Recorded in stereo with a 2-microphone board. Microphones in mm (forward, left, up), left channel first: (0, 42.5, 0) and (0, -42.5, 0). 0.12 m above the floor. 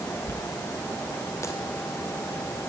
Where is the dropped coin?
30° left (ahead or behind), 2.5 m.